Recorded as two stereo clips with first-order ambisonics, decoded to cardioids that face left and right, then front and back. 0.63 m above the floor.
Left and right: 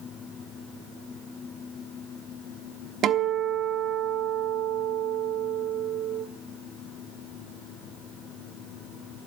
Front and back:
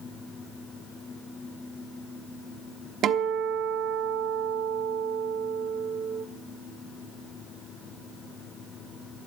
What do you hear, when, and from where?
3.0 s a guitar: 135° right, 0.9 m